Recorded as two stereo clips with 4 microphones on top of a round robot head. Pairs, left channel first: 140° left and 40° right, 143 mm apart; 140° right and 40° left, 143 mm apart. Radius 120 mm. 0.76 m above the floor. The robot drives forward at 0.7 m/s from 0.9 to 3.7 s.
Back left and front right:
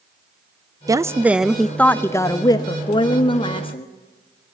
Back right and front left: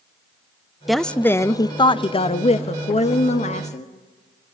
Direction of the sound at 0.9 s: 50° right.